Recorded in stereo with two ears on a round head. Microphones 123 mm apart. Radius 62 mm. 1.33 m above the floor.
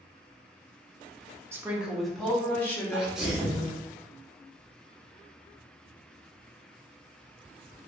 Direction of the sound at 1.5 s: 20° right (ahead or behind).